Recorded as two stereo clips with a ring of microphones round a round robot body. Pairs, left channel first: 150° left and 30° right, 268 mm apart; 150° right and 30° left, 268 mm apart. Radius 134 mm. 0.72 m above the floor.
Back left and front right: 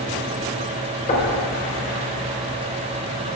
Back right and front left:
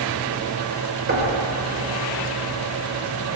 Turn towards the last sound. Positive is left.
turn(degrees=85)